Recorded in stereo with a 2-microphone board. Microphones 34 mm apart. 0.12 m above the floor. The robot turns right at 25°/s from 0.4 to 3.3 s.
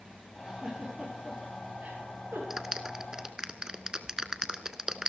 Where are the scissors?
No scissors in this recording.